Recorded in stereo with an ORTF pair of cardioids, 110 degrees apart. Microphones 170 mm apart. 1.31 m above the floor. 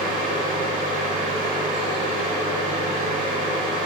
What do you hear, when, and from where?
0.0 s a fan: 50° right, 0.9 m